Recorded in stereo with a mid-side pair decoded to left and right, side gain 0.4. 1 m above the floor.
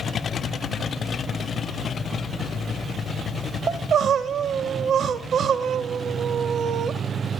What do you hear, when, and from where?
3.7 s crying: 65° right, 0.8 m